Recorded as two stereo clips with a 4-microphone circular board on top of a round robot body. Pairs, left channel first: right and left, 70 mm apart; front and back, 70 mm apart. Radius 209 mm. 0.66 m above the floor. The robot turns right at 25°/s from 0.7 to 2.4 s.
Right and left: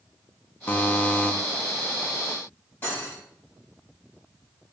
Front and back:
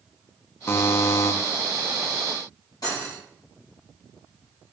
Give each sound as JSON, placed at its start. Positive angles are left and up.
{"t": 0.7, "sound": "a buzzer", "azimuth_deg": -40, "distance_m": 0.8}
{"t": 2.8, "sound": "cutlery clinking", "azimuth_deg": -30, "distance_m": 3.0}